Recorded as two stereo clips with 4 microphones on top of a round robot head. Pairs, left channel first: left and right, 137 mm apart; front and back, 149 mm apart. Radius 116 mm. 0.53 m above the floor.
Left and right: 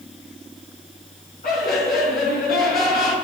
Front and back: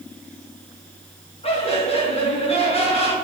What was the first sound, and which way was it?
Laughter, 45° left.